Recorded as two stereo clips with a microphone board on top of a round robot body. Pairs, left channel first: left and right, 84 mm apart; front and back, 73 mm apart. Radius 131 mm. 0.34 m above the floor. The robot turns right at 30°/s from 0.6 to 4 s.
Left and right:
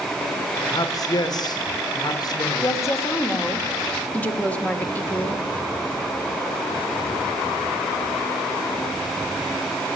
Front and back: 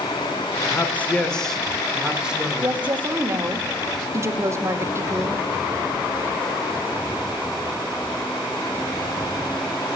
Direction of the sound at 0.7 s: 55° left.